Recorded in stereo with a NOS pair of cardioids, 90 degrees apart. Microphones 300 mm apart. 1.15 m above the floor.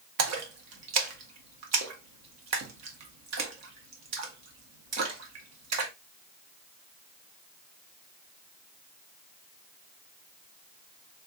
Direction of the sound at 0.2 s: 65° right.